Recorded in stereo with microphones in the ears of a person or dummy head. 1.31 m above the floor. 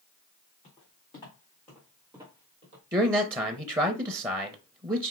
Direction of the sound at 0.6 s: 30° left (ahead or behind).